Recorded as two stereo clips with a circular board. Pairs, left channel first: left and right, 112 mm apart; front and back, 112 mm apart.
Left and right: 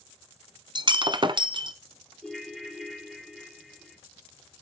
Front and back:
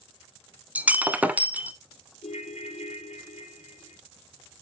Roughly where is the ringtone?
Ahead.